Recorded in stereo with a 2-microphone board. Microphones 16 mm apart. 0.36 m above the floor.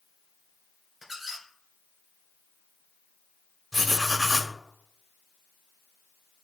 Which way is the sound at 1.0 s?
15° right (ahead or behind).